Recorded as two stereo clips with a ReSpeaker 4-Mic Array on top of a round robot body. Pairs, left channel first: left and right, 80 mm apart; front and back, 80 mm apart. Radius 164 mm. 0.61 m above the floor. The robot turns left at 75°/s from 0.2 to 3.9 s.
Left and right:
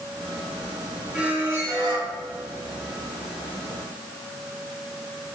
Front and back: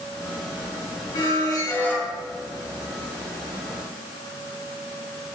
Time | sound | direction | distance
1.1 | a squeak | 15° right | 3 m